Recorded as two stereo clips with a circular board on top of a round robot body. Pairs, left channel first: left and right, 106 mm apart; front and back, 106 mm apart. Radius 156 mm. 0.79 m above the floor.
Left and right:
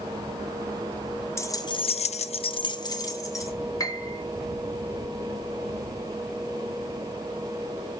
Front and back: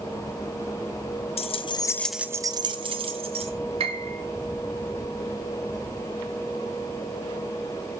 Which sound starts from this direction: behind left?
A piano, at 3.8 s.